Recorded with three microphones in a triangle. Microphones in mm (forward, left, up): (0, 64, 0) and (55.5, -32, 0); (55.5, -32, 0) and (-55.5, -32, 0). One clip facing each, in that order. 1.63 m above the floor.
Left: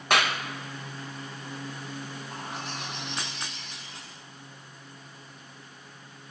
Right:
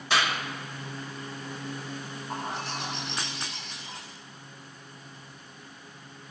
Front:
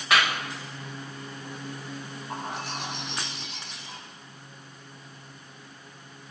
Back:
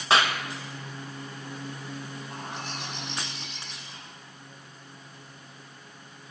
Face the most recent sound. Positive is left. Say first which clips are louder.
# right 6 dB, front 6 dB
turn(degrees=-10)